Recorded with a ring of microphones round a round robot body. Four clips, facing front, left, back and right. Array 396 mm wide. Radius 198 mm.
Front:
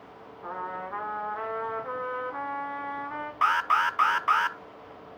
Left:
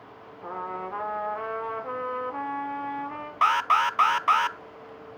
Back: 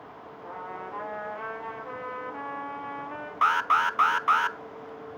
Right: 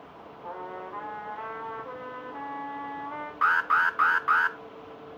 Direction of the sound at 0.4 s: 75° left.